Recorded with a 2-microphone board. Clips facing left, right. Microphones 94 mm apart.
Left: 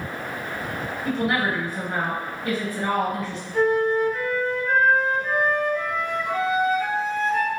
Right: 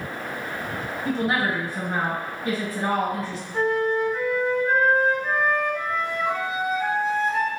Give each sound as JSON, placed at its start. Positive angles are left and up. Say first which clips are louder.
{"t": 1.1, "sound": "a woman speaking", "louder": "even", "side_deg": 0, "distance_m": 1.7}
{"t": 3.5, "sound": "a flute", "louder": "left 2 dB", "side_deg": -5, "distance_m": 1.8}